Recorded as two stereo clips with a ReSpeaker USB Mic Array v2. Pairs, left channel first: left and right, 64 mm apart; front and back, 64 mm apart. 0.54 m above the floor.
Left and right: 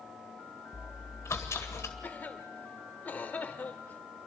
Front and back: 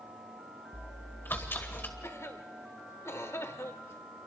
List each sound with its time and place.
0.7 s chewing: 50° left, 2 m
2.0 s a cough: 35° left, 1.8 m